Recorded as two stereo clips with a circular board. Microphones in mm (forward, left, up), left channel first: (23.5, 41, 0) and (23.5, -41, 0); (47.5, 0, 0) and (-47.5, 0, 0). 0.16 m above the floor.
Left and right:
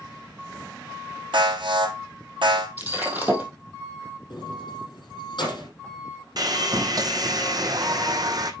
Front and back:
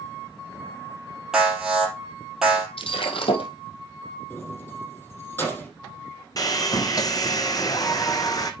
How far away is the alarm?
About 3.5 m.